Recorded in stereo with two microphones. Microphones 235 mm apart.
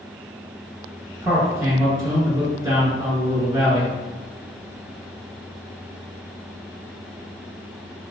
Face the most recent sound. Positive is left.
turn(degrees=-15)  # may be behind; listen again after turning